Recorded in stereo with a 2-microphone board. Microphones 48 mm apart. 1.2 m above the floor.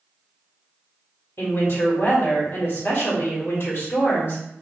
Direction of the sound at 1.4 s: 55° left (ahead or behind).